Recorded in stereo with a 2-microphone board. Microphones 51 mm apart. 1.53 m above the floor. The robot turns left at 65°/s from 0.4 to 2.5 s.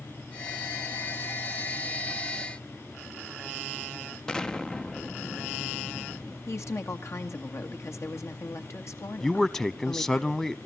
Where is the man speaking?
10° left (ahead or behind), 0.7 m.